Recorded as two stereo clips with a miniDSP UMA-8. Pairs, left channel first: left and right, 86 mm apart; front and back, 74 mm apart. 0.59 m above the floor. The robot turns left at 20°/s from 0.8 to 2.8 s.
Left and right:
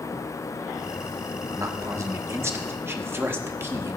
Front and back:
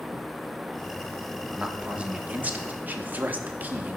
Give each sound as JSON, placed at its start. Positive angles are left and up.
{"t": 1.6, "sound": "a man speaking", "azimuth_deg": -105, "distance_m": 0.8}